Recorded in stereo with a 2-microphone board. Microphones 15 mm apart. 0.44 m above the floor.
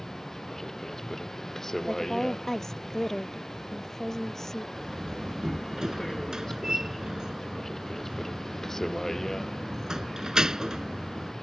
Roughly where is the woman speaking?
Left.